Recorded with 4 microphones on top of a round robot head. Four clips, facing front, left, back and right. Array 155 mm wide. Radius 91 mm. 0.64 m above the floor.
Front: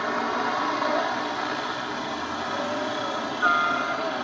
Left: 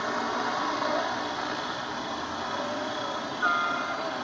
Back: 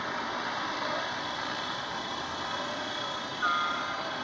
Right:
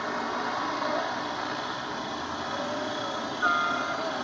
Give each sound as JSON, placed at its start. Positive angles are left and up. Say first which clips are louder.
{"t": 0.0, "sound": "a helicopter", "louder": "left 1 dB, front 8 dB", "azimuth_deg": 10}